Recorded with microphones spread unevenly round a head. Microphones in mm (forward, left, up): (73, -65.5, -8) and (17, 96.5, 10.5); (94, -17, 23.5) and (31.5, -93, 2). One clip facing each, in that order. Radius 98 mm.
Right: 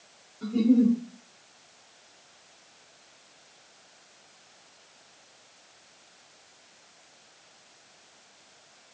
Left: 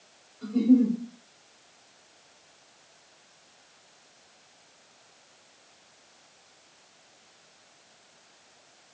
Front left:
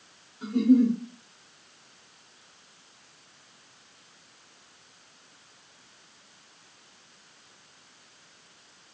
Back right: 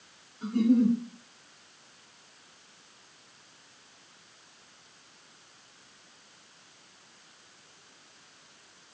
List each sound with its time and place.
0.4 s a giggle: 30° right, 2.5 m